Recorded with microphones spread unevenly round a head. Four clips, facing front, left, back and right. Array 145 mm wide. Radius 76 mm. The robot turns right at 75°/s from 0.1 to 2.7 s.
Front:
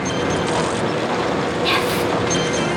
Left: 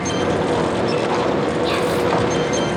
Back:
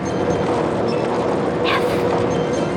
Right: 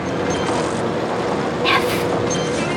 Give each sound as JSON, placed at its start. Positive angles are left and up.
{"t": 1.6, "sound": "whispering", "azimuth_deg": -105, "distance_m": 2.0}